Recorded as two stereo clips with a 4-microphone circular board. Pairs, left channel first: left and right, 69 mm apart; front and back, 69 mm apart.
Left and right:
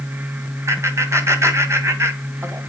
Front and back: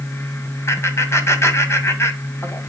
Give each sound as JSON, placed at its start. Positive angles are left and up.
{"t": 0.7, "sound": "laughter", "azimuth_deg": -45, "distance_m": 2.0}